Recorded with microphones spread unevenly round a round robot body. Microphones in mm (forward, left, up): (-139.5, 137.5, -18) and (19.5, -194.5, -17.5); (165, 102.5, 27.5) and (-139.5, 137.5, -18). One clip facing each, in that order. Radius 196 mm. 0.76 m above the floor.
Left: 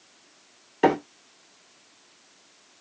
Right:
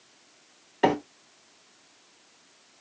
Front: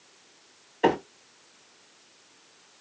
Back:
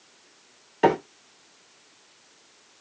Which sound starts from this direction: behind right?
A microwave, at 0.8 s.